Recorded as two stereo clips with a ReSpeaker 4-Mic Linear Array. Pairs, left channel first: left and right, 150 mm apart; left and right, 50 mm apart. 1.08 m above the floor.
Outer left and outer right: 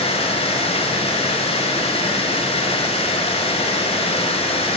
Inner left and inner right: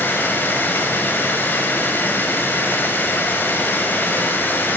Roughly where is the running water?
Left.